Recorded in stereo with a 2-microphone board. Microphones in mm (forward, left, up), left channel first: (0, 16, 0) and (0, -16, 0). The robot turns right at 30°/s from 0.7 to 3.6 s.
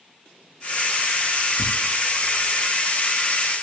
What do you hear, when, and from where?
1.6 s tearing paper: 60° right (ahead or behind), 0.5 m